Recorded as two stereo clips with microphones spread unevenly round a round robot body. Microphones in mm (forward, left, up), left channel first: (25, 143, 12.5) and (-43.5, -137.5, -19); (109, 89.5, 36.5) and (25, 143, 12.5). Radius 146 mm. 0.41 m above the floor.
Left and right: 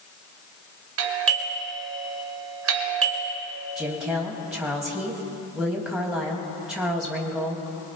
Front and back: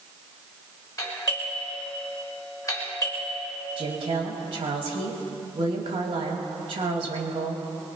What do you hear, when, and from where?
1.0 s a doorbell: 100° right, 1.8 m
3.8 s a woman speaking: 170° left, 2.5 m